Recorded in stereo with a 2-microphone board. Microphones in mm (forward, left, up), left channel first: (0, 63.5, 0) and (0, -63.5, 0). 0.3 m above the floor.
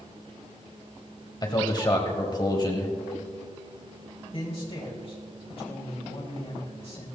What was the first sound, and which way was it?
A man speaking, 35° left (ahead or behind).